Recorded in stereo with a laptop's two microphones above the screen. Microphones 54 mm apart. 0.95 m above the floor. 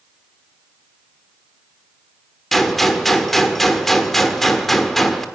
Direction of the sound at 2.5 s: 5° left (ahead or behind).